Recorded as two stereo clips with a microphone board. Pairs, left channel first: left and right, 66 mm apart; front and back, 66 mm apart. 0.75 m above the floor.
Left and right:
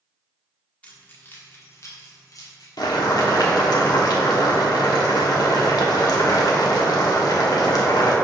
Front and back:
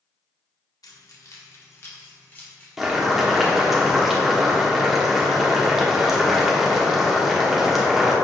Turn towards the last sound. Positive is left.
turn(degrees=95)